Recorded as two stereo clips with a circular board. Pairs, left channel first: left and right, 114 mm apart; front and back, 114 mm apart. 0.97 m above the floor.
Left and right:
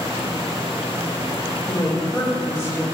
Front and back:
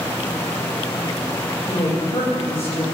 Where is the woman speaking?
25° left, 3 m.